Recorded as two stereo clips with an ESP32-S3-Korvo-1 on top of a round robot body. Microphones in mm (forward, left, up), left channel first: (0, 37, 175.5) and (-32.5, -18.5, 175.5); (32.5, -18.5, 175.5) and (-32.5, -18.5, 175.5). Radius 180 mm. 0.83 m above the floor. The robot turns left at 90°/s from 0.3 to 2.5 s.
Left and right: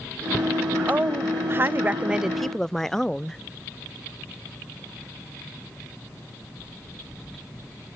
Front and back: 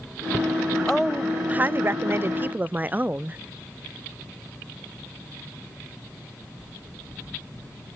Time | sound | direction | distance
0.9 | a woman speaking | 75° right | 0.5 m